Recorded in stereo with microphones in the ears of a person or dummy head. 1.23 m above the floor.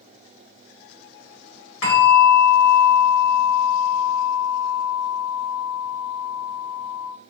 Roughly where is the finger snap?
I don't hear a finger snap.